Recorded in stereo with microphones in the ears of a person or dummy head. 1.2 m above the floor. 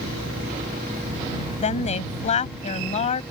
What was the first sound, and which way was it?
A woman speaking, 40° left (ahead or behind).